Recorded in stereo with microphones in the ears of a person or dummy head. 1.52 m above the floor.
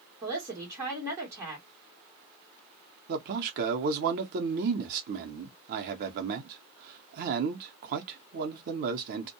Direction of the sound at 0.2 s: 15° right (ahead or behind).